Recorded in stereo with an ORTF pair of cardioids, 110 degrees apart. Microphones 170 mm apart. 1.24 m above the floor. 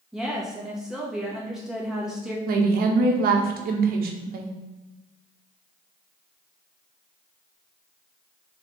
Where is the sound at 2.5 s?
60° right, 1.0 m.